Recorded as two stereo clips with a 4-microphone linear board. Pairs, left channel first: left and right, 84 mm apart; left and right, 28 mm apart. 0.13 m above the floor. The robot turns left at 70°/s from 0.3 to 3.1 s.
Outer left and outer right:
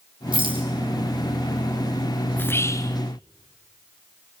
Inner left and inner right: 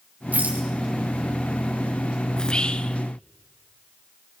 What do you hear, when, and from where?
0.3 s a rattle: 70° right (ahead or behind), 7 m; by 0.7 s 85° right, 7 m
2.4 s whispering: 150° left, 1.4 m; by 3.0 s 105° left, 1.4 m